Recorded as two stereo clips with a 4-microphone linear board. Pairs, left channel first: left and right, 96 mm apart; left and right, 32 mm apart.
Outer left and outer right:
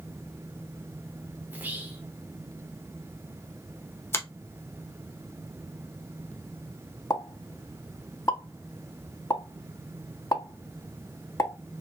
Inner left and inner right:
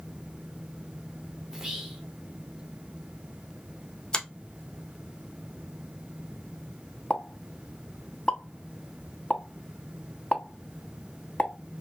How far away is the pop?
About 0.6 m.